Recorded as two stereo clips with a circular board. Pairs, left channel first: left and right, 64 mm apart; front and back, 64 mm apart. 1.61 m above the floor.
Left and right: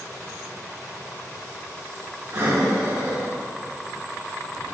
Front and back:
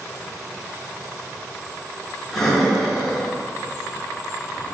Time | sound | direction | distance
2.3 | breathing | 85° right | 2 m